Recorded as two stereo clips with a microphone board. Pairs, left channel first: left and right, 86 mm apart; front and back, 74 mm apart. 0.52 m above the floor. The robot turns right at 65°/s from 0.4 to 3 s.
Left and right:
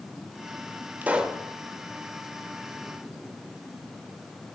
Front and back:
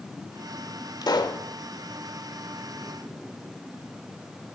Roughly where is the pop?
Ahead right.